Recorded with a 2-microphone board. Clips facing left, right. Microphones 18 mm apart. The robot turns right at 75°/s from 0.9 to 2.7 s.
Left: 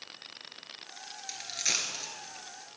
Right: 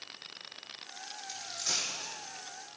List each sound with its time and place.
1.3 s a dropped coin: 80° left, 1.4 m; by 2.1 s 35° left (ahead or behind), 1.4 m